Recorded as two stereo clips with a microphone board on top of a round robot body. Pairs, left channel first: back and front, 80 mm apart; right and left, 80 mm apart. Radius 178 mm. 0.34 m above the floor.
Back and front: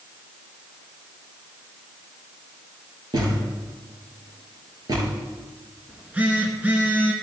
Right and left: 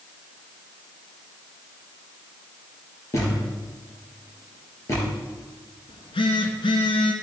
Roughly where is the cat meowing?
I don't hear a cat meowing.